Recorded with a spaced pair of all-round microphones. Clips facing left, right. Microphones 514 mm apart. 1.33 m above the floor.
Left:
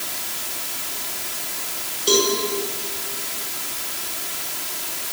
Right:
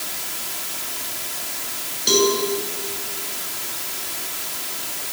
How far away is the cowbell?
About 7 m.